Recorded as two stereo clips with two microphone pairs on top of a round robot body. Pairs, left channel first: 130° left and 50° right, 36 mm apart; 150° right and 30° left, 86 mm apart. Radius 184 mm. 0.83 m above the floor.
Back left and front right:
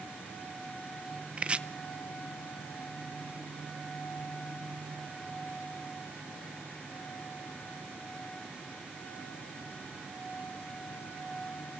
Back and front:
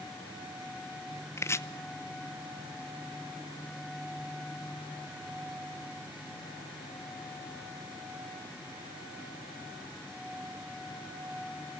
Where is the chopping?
100° right, 1.0 m.